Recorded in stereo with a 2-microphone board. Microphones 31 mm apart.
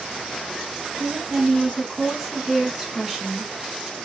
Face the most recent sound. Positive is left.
turn(degrees=-15)  # may be behind; listen again after turning